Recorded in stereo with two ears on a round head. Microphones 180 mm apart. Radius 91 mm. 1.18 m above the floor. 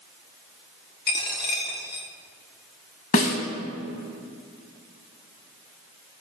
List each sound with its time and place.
1.1 s a dropped coin: 50° left (ahead or behind), 1.3 m
3.1 s a snare drum: 40° left (ahead or behind), 1.3 m